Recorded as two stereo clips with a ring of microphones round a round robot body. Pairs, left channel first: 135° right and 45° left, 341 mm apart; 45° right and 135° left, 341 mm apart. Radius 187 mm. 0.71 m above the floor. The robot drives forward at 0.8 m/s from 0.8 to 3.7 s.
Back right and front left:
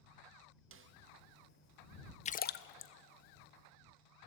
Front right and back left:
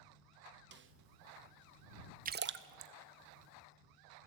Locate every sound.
0.7 s a snare drum: 85° left, 0.8 m; by 0.9 s 100° left, 0.8 m
2.2 s a splash: 175° left, 0.6 m; by 2.9 s straight behind, 1.0 m